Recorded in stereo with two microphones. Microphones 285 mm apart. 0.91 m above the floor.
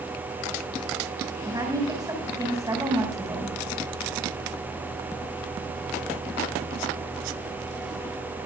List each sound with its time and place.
1.4 s a woman speaking: 15° right (ahead or behind), 5.5 m